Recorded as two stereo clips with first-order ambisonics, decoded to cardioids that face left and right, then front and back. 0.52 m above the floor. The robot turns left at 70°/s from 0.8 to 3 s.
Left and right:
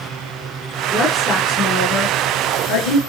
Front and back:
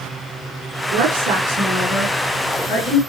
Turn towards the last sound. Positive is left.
turn(degrees=30)